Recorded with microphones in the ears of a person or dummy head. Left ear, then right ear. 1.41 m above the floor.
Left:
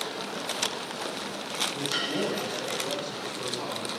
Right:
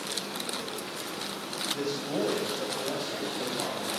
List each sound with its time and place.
1.7 s a man speaking: 25° right (ahead or behind), 7 m; by 3.9 s 35° right (ahead or behind), 9 m